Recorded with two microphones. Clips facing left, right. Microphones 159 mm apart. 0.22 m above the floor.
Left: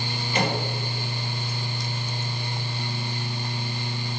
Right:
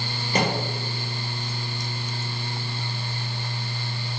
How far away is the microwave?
About 4 m.